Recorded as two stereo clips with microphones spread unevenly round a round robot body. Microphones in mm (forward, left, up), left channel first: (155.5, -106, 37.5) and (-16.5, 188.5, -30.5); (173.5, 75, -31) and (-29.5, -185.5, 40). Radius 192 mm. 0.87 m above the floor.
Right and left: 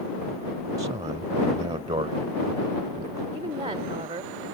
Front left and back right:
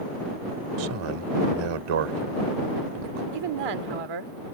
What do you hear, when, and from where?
0.8 s a man speaking: 160° right
3.3 s a woman speaking: 160° right